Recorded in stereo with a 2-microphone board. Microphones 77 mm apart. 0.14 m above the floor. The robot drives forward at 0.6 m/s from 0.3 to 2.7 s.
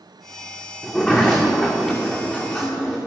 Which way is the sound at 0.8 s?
15° left (ahead or behind).